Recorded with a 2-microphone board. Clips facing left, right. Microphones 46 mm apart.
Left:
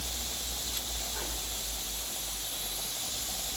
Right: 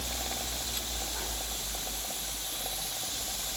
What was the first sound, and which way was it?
Only background noise.